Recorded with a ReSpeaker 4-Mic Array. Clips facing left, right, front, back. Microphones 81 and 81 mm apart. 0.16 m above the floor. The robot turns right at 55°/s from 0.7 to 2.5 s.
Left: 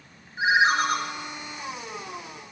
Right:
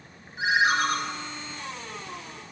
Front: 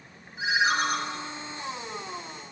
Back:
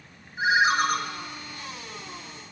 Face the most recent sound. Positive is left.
turn(degrees=-115)